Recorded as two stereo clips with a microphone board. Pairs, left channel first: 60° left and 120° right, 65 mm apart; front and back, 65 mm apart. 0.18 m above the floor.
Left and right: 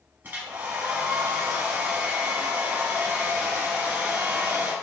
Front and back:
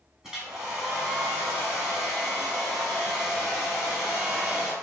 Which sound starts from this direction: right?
A hair dryer, at 0.2 s.